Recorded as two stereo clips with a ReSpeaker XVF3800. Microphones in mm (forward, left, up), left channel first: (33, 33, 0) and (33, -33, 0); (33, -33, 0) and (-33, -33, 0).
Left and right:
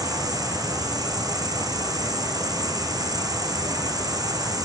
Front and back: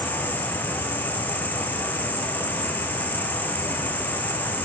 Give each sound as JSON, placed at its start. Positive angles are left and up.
{"t": 0.0, "sound": "an insect", "azimuth_deg": -65, "distance_m": 4.0}